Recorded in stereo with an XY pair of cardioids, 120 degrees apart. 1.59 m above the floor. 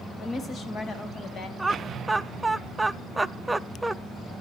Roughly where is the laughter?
Ahead.